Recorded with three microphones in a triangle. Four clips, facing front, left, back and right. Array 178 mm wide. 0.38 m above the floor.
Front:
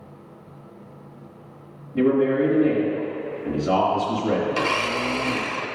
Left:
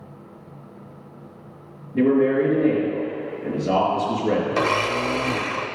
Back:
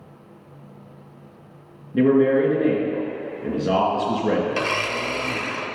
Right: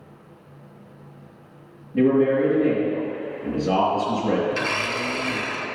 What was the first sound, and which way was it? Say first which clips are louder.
A man speaking: even, back 3 dB; 175° right.